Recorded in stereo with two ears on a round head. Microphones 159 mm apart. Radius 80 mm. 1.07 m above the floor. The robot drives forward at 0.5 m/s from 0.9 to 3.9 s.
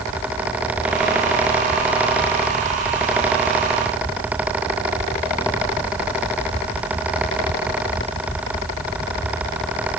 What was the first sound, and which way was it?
Only background noise.